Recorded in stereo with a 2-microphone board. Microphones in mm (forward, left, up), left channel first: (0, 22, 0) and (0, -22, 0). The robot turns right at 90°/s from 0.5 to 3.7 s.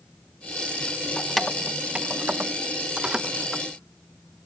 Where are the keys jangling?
10° left (ahead or behind), 0.7 m.